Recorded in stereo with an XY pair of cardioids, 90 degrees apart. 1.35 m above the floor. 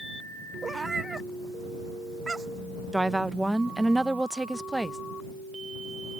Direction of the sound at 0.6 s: 35° right.